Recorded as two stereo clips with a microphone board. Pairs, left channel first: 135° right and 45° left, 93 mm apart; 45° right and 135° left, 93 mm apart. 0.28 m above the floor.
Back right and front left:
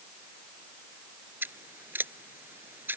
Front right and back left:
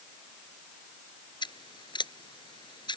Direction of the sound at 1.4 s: 20° right.